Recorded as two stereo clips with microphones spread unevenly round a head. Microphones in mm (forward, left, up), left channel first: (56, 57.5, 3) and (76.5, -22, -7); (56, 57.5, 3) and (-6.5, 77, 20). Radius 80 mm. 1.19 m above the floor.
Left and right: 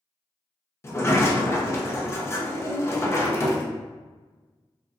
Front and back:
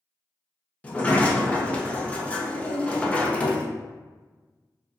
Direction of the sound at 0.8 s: 45° left.